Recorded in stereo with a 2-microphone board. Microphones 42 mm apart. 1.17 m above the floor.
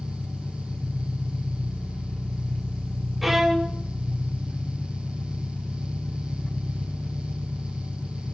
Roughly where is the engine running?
Left.